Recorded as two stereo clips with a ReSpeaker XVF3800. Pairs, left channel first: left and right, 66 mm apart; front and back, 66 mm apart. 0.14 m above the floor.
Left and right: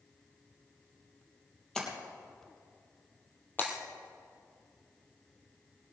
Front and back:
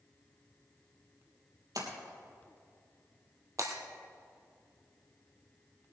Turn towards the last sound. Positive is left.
turn(degrees=150)